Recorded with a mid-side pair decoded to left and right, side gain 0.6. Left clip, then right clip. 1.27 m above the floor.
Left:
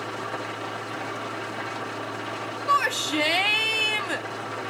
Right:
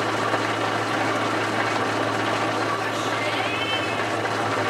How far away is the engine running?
About 0.9 m.